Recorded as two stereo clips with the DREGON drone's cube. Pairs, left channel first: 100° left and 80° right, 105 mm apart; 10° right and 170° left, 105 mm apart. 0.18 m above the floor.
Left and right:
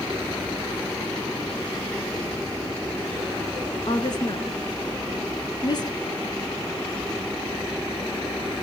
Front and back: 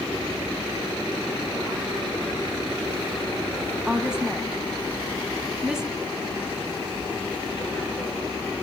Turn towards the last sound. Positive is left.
turn(degrees=85)